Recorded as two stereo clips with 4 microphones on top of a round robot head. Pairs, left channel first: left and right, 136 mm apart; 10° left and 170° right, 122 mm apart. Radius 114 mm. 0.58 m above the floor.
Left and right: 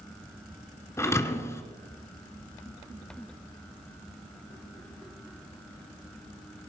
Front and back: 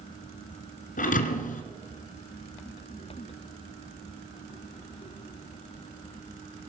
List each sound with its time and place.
1.0 s a thud: 20° left, 1.8 m